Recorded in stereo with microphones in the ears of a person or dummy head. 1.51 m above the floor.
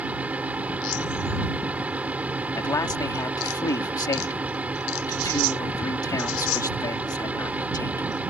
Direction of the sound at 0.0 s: 10° right (ahead or behind).